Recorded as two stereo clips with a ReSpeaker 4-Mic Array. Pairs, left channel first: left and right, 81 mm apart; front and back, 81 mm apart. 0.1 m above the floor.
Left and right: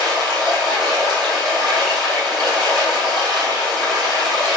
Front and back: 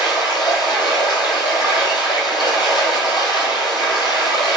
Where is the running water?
5° left, 2.5 m.